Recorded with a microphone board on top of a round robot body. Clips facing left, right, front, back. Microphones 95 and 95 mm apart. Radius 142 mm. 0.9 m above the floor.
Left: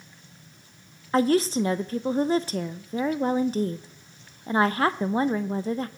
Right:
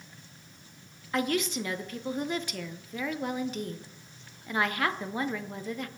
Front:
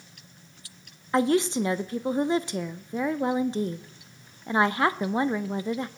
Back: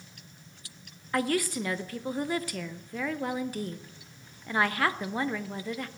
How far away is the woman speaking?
About 0.6 m.